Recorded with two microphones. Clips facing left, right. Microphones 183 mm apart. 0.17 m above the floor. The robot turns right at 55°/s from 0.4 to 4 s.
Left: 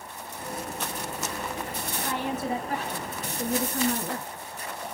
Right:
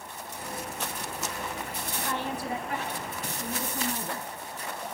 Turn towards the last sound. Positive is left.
turn(degrees=115)